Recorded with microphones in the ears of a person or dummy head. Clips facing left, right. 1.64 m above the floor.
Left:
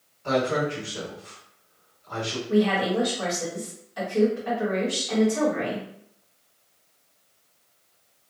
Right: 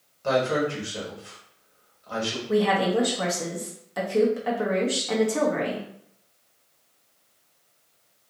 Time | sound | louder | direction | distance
0.2 | a man speaking | right 1 dB | 60° right (ahead or behind) | 1.4 m
2.5 | a woman speaking | even | 55° right (ahead or behind) | 0.9 m